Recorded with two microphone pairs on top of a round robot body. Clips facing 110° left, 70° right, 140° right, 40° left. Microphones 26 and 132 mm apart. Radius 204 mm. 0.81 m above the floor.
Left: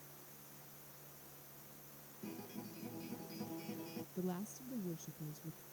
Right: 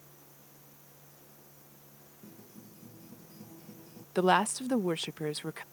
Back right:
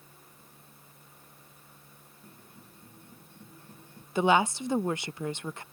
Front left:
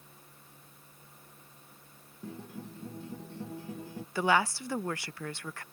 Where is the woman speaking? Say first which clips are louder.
Right 20 dB, back right 4 dB; 75° right.